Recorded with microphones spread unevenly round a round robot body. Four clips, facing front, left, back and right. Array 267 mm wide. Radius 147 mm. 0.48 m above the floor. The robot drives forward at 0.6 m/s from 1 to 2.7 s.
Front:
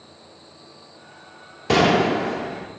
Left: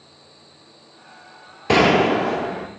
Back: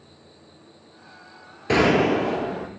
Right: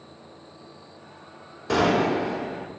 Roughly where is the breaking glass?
I don't hear breaking glass.